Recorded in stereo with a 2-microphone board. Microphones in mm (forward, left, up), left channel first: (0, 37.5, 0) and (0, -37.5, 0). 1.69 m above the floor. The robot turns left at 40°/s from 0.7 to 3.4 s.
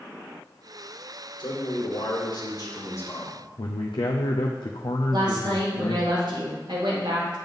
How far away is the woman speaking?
About 2.5 m.